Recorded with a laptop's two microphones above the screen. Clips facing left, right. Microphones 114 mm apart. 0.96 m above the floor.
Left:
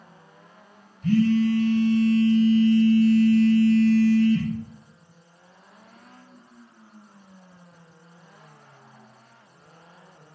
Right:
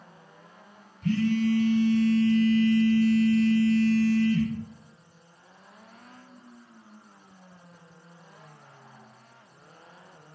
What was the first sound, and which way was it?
A phone buzzing, 80° right.